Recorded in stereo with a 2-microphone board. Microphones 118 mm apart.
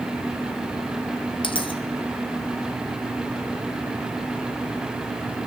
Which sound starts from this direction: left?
A dropped coin, at 1.4 s.